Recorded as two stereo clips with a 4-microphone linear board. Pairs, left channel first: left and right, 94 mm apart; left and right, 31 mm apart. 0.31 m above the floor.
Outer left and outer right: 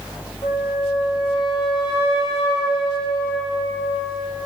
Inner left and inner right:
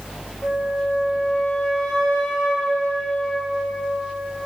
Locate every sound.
0.4 s a flute: 55° left (ahead or behind), 7.5 m